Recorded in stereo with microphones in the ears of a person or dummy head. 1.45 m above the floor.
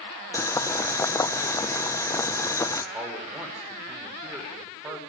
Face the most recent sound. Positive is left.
turn(degrees=-10)  # may be behind; listen again after turning